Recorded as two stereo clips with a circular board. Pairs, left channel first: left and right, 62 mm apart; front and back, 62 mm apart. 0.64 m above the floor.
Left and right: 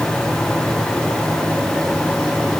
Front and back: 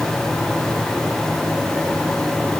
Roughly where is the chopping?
No chopping in this recording.